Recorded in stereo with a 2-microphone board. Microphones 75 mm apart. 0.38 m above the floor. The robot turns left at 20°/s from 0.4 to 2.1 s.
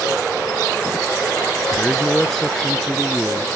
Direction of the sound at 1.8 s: 10° left (ahead or behind).